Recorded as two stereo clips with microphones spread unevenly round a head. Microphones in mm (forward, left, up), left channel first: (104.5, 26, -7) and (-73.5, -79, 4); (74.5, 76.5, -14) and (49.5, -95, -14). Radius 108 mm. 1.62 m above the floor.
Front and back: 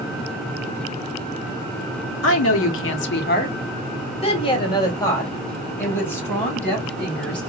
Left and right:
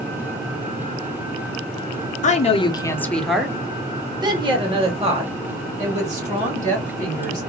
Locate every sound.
2.2 s a woman speaking: 40° left, 0.8 m; by 7.4 s 55° right, 3 m